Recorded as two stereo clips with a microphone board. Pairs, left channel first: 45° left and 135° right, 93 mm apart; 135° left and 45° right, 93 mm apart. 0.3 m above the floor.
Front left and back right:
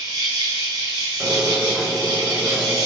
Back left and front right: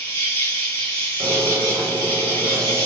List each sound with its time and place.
0.0 s an insect: 165° right, 1.6 m
1.2 s a squeak: 45° right, 0.9 m